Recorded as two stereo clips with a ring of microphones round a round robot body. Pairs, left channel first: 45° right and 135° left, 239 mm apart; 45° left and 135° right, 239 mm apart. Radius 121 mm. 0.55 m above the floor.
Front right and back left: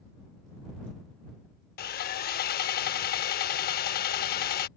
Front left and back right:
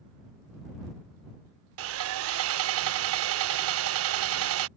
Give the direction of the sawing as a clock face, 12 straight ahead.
3 o'clock.